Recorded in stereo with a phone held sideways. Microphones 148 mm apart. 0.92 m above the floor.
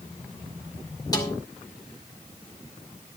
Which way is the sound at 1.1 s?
25° left (ahead or behind).